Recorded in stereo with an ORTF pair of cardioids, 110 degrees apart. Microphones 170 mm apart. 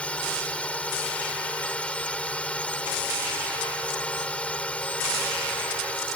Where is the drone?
5° left.